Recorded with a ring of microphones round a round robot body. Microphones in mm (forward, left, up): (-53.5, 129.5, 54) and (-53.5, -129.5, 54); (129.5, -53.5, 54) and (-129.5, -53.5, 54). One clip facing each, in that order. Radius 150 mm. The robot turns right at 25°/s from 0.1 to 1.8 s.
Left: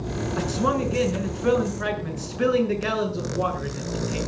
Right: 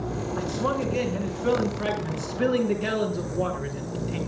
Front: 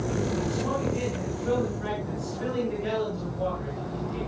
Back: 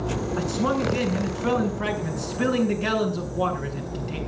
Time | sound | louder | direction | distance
0.4 | a man speaking | left 3 dB, back 4 dB | 140° left | 7 m